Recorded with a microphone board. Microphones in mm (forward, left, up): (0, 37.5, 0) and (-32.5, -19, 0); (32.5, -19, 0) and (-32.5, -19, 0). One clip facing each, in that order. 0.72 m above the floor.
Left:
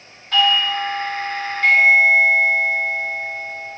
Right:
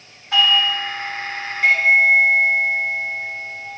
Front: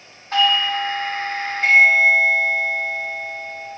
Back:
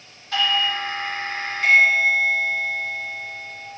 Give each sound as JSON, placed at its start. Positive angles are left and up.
{"t": 0.3, "sound": "a doorbell", "azimuth_deg": -45, "distance_m": 1.5}